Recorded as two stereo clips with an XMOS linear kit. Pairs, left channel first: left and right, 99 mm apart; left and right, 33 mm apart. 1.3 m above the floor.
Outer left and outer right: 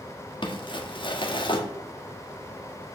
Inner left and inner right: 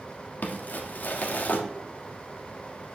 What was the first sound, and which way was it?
Crumpling, 55° left (ahead or behind).